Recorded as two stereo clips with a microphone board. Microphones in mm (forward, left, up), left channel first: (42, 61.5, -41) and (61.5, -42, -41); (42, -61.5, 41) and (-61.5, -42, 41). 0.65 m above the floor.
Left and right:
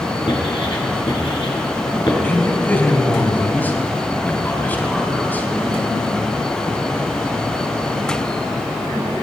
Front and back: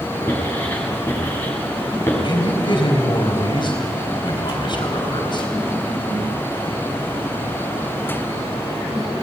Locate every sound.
0.3 s writing: 60° left, 6 m
2.2 s a man speaking: 30° left, 4.5 m